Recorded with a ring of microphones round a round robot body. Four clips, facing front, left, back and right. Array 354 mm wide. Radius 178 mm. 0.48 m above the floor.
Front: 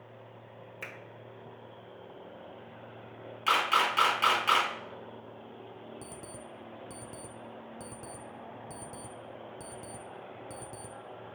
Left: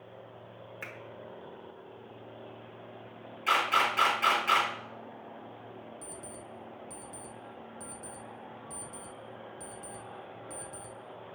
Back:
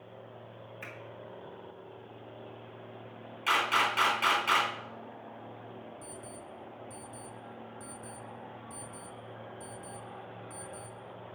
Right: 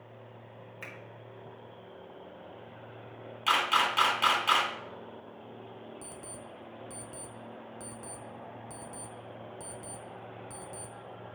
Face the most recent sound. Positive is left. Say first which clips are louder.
# even, even
turn(degrees=-15)